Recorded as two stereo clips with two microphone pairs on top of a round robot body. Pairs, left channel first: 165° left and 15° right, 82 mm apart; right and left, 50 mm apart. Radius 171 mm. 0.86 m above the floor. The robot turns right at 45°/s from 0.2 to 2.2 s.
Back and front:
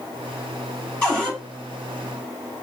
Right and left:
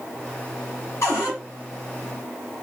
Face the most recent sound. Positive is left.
turn(degrees=-65)